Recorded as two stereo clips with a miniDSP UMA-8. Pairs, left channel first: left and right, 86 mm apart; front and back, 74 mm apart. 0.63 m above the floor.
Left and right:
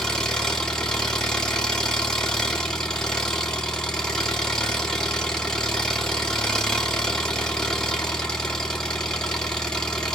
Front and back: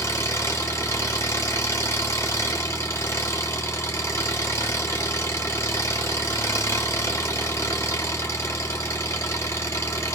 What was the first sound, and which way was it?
An engine running, 15° left.